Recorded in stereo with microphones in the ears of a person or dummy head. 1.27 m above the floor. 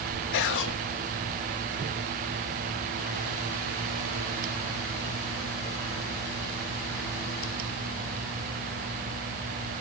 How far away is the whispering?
About 1.6 m.